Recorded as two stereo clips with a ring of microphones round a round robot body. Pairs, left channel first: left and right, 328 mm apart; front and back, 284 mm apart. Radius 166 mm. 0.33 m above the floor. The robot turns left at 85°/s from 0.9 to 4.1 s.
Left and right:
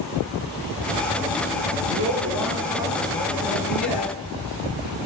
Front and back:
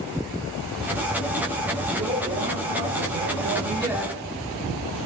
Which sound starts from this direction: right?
A woman speaking, at 1.9 s.